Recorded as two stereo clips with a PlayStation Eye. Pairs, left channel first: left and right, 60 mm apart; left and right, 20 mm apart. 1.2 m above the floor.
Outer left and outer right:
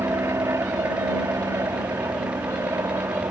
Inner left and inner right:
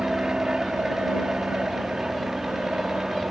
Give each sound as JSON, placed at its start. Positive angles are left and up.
{"t": 0.0, "sound": "an aircraft", "side_deg": -55}